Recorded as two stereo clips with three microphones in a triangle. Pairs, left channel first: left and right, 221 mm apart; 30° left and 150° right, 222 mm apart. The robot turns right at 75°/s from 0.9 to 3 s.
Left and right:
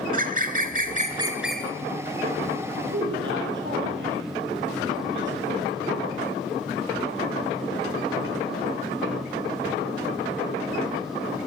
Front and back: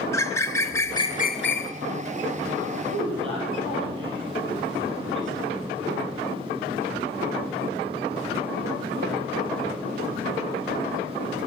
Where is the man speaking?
130° right, 6 m; by 5.4 s 125° right, 6 m.